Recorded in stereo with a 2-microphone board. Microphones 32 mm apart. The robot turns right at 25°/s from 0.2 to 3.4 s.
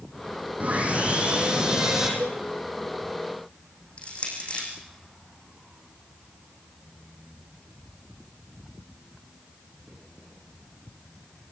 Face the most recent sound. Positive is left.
turn(degrees=40)  # may be behind; listen again after turning